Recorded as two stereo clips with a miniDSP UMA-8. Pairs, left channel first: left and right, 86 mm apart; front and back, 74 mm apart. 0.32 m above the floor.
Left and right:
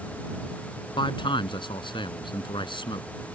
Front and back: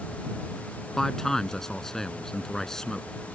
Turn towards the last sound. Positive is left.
turn(degrees=85)